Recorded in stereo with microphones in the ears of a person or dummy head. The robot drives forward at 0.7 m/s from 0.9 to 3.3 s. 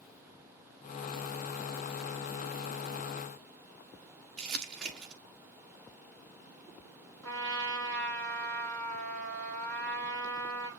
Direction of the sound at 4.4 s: 5° left (ahead or behind).